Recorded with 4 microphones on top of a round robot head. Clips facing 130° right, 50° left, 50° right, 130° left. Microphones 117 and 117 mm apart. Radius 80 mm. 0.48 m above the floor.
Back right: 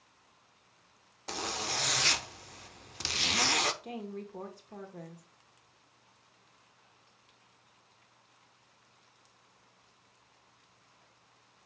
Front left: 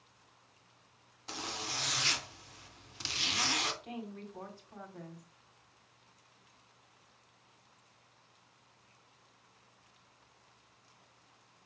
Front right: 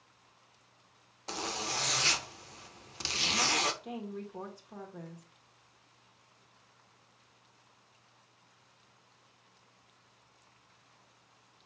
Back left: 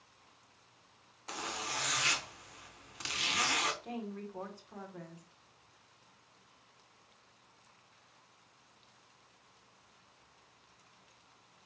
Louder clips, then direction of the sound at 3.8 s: Back right 3 dB, front right 1 dB; 120° right.